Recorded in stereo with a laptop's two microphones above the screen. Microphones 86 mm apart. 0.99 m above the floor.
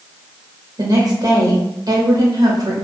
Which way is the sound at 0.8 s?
50° right (ahead or behind).